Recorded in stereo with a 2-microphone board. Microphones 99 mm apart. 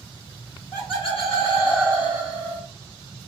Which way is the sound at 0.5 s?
55° left (ahead or behind).